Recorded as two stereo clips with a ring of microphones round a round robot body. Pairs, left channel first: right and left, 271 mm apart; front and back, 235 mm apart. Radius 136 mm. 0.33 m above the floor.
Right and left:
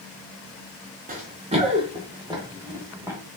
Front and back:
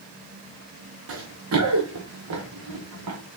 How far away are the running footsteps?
About 2 m.